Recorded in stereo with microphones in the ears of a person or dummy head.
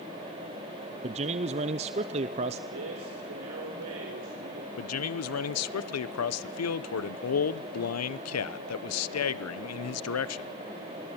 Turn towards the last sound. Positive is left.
turn(degrees=75)  # may be behind; listen again after turning